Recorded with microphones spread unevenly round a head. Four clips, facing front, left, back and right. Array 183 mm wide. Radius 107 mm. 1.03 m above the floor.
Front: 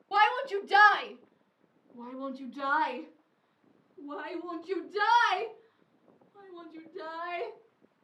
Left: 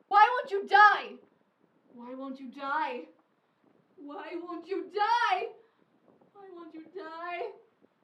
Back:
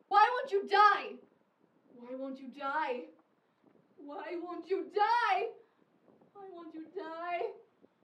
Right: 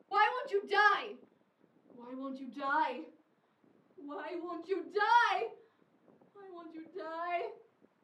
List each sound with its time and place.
0.1 s a shout: 80° left, 0.7 m; by 7.5 s 10° left, 5.5 m